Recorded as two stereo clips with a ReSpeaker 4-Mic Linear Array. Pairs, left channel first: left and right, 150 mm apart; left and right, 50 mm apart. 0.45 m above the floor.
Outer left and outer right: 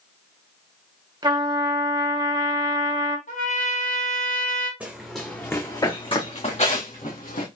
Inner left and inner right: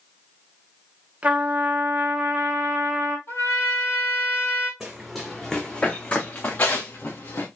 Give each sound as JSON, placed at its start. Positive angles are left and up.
{"t": 1.2, "sound": "a trumpet", "side_deg": -30, "distance_m": 1.0}
{"t": 3.3, "sound": "a trumpet", "side_deg": 60, "distance_m": 3.5}
{"t": 4.8, "sound": "running footsteps", "side_deg": -10, "distance_m": 1.5}